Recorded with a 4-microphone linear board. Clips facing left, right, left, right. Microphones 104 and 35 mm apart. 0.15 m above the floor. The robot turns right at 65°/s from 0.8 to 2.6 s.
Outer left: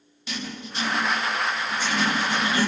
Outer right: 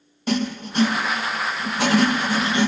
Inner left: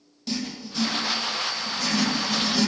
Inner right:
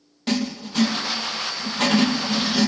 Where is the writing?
135° right, 3 m; by 2.7 s 15° right, 3 m.